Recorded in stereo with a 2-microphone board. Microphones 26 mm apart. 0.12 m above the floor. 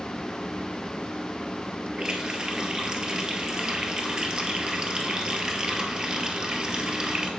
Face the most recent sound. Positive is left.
turn(degrees=-35)  # may be behind; listen again after turning